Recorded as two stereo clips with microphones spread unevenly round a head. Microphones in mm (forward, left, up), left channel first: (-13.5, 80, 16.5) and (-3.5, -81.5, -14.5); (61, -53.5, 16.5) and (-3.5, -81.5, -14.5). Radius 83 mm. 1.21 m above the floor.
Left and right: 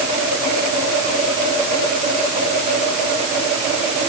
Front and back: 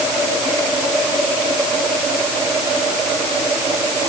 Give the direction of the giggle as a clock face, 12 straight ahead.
I don't hear a giggle.